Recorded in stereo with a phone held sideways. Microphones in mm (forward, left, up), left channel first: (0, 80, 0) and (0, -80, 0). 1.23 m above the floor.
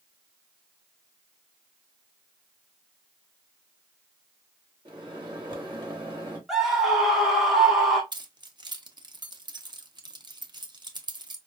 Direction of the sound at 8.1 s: 30° right (ahead or behind).